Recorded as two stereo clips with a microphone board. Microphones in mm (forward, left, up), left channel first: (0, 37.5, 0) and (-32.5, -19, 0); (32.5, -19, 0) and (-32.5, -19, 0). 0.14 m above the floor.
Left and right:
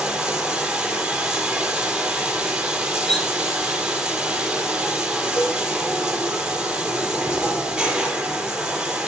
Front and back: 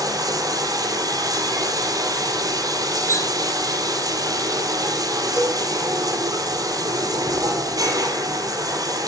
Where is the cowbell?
55° left, 3.5 m.